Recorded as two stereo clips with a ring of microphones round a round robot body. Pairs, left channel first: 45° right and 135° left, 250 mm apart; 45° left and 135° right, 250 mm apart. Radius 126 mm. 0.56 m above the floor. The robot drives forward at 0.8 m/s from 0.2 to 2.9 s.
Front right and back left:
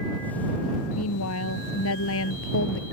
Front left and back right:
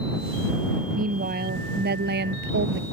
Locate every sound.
0.9 s a woman speaking: 75° right; by 2.8 s 85° right